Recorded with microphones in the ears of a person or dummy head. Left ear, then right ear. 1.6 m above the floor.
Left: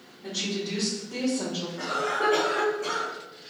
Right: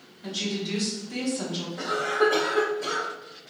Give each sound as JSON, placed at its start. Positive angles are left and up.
{"t": 0.2, "sound": "a woman speaking", "side_deg": -55, "distance_m": 1.6}
{"t": 1.8, "sound": "a cough", "side_deg": -85, "distance_m": 1.2}